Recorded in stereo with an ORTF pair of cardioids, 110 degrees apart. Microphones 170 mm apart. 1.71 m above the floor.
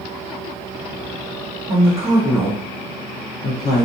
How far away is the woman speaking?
About 1.2 m.